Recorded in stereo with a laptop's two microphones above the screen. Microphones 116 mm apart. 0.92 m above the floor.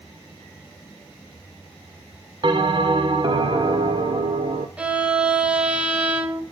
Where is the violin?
10° right (ahead or behind), 1.0 m.